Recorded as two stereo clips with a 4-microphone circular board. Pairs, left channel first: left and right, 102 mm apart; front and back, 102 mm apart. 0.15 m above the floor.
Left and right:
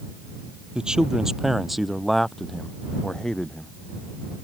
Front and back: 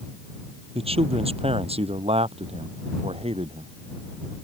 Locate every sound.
0.8 s a man speaking: 170° right; by 3.7 s 170° left